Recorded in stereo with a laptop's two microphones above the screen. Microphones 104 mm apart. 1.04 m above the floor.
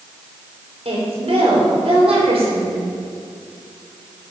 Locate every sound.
0.8 s a woman speaking: 75° right (ahead or behind), 4.5 m